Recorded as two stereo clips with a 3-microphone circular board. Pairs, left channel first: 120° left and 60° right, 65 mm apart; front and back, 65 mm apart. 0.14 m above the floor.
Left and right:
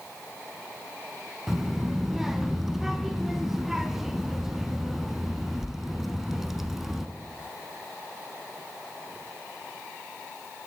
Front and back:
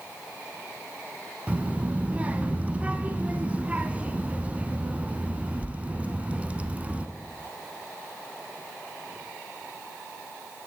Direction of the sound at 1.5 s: 135° right.